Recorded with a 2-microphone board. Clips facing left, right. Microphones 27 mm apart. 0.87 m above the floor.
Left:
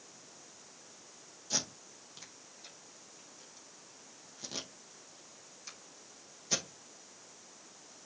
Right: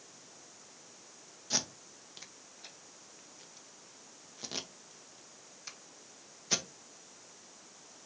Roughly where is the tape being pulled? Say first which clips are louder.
Right 1 dB; centre.